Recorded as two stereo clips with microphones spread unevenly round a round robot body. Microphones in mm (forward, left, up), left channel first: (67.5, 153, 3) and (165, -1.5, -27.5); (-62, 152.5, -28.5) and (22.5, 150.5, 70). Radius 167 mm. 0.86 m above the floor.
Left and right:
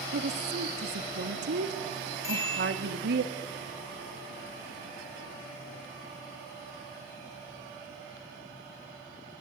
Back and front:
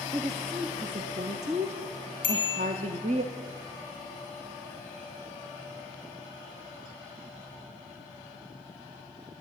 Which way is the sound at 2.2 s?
165° right.